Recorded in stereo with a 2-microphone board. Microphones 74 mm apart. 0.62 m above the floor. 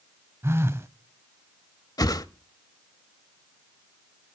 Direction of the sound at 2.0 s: 60° left (ahead or behind).